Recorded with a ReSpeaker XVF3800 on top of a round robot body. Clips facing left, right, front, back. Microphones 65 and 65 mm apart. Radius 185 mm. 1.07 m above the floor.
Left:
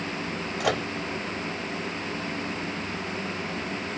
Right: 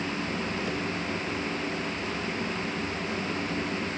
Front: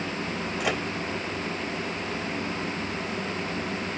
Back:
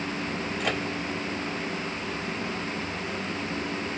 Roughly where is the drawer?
I don't hear a drawer.